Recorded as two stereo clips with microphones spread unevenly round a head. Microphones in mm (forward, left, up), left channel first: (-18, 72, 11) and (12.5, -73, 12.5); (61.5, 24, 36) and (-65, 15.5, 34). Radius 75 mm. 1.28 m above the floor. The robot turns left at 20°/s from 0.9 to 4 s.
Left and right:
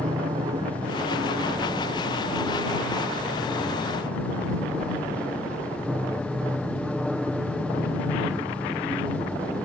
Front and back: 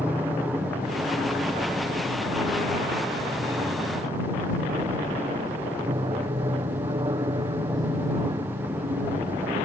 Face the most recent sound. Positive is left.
turn(degrees=-170)